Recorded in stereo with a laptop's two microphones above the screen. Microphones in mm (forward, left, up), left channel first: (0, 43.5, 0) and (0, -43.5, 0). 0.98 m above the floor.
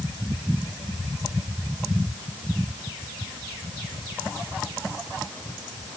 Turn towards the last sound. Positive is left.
No sound to turn to.